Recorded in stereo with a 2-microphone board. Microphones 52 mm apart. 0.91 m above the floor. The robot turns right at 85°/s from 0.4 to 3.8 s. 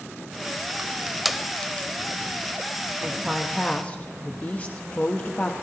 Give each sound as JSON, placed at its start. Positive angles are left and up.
{"t": 0.8, "sound": "crushing", "side_deg": -30, "distance_m": 0.8}
{"t": 3.0, "sound": "a woman speaking", "azimuth_deg": -35, "distance_m": 0.8}